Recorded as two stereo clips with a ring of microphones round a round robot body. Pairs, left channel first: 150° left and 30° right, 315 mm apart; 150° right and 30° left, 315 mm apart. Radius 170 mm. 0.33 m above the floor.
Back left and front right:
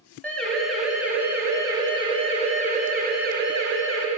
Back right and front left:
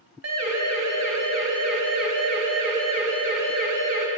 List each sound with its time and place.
0.2 s a siren: 65° left, 3.5 m; by 4.1 s 15° left, 3 m